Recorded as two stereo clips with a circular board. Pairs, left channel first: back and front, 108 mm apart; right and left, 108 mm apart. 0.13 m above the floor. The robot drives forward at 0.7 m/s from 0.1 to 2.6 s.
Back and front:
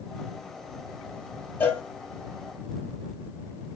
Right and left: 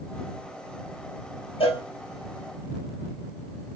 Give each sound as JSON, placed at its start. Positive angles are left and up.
{"t": 1.6, "sound": "a cowbell", "azimuth_deg": -110, "distance_m": 1.6}